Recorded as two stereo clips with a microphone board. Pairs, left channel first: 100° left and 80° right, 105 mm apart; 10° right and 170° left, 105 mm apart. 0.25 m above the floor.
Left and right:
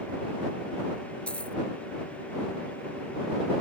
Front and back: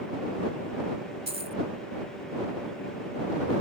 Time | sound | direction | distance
1.3 | a dropped coin | straight behind | ?